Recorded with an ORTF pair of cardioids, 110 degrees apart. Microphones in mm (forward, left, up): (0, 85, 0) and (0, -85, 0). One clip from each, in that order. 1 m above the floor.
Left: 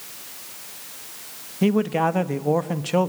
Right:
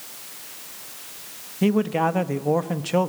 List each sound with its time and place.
1.6 s a man speaking: 5° left, 0.9 m